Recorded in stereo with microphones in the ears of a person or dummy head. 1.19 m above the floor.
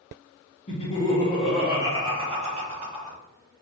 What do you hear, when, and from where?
0.7 s laughter: 35° left (ahead or behind), 0.7 m; by 3.2 s 40° right (ahead or behind), 1.2 m